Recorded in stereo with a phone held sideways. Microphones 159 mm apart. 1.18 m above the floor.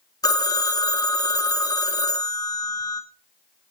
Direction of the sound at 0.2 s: 25° left (ahead or behind).